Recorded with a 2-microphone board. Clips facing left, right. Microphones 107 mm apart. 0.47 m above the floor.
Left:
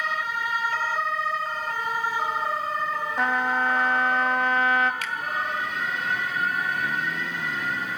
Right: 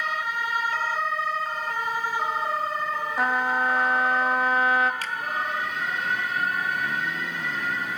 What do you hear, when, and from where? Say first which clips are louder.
3.2 s a trumpet: even; 5° right (ahead or behind), 1.0 m
5.0 s a finger snap: even; 35° right (ahead or behind), 1.3 m